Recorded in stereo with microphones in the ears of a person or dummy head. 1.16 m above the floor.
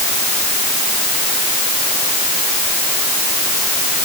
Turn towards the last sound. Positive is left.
No sound to turn to.